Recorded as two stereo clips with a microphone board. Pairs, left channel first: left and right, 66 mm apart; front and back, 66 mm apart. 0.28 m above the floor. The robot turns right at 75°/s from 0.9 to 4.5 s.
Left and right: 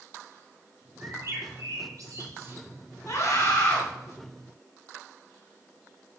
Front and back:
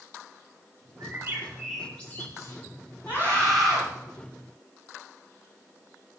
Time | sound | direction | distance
1.0 | a bird | 145° right | 3 m
3.1 | a scream | 50° left | 2.5 m